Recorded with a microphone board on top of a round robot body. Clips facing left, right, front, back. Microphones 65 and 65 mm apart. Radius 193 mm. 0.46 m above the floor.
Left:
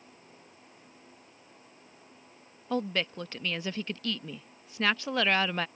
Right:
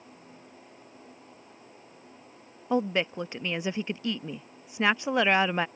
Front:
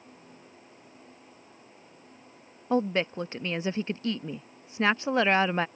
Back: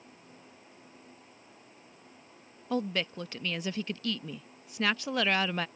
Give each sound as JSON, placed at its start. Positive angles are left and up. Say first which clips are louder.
{"t": 2.7, "sound": "a woman speaking", "louder": "right 4 dB, front 5 dB", "azimuth_deg": -35}